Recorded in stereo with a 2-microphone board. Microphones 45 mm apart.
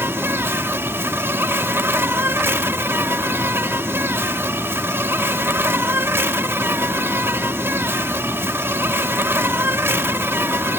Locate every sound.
0.0 s an insect: 60° right (ahead or behind)